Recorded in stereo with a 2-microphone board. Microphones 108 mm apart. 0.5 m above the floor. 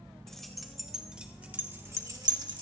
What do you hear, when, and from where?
0.3 s keys jangling: 5° left (ahead or behind), 1.9 m; by 2.6 s 45° right (ahead or behind), 1.2 m